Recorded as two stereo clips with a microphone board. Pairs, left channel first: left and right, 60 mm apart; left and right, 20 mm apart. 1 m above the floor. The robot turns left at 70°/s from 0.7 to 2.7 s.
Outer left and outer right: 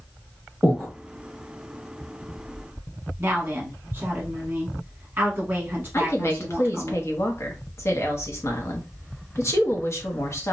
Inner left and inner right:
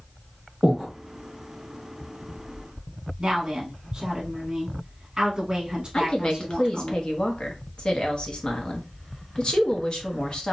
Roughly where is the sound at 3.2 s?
Right.